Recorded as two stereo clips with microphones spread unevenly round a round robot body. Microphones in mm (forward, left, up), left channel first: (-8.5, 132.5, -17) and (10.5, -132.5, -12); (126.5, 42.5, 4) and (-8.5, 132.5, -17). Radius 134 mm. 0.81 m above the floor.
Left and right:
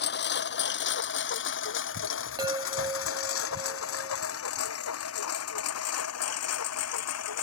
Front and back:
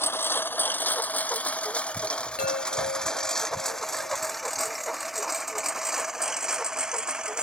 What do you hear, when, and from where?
0.0 s a lawn mower: 40° left; by 7.5 s 60° left
2.4 s a chime: 10° right